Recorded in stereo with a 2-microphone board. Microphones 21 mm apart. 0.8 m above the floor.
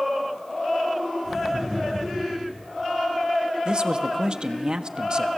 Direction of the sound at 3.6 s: 40° right (ahead or behind).